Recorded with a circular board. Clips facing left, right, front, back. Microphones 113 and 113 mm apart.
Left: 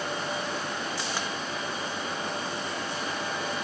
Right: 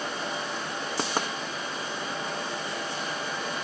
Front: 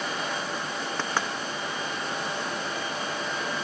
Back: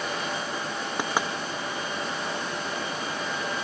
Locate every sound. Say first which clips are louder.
1.0 s knocking: right 4 dB, back 3 dB; 105° right, 0.9 m